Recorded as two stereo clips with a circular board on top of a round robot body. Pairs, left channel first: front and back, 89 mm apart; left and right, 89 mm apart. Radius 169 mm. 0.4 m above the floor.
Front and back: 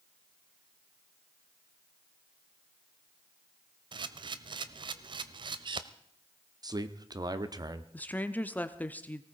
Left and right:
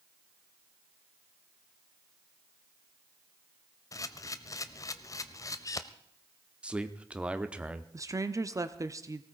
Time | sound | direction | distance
3.9 | a camera shutter | 145° left | 0.6 m
6.6 | a man speaking | 165° right | 1.2 m
7.9 | a woman speaking | 65° right | 1.1 m